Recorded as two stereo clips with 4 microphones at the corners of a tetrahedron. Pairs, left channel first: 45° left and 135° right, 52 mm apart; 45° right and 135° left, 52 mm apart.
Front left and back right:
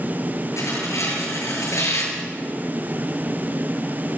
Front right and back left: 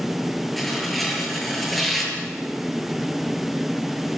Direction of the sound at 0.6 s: 45° left.